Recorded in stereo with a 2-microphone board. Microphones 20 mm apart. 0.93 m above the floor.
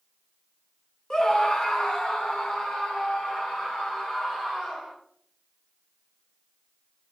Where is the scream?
35° left (ahead or behind), 1.1 m; by 4.9 s 65° left (ahead or behind), 7 m.